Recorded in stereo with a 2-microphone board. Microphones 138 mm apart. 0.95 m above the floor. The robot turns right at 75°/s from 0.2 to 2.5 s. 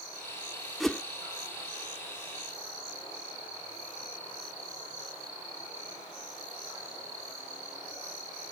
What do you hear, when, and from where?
0.8 s a whoosh: centre (ahead or behind); by 1.0 s 15° left (ahead or behind)